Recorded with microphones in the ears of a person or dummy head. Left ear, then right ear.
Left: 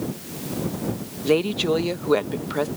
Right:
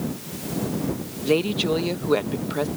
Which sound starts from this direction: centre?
A woman speaking, at 1.2 s.